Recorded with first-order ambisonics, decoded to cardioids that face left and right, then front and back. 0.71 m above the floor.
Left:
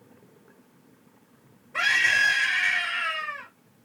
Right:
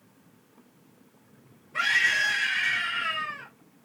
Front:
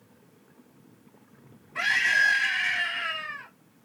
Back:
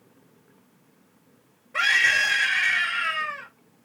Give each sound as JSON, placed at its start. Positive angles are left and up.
{"t": 1.7, "sound": "a scream", "azimuth_deg": 165, "distance_m": 2.5}